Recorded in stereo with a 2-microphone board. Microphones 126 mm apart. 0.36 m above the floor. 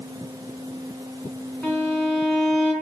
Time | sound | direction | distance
1.6 | a violin | 5° left (ahead or behind) | 3.5 m